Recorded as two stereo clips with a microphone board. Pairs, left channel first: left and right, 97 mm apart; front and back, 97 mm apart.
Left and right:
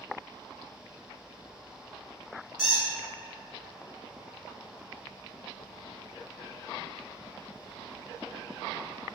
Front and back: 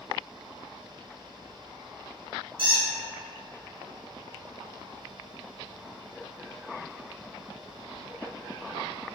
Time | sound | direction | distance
2.6 | a squeak | 170° right | 1.8 m